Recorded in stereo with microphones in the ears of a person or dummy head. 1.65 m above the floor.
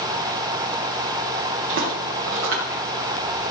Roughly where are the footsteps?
Right.